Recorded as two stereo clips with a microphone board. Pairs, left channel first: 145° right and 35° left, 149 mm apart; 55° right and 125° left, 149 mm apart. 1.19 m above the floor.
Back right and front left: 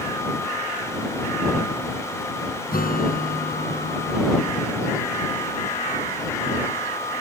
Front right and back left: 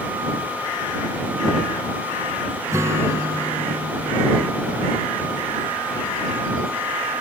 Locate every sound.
2.7 s a guitar: 165° right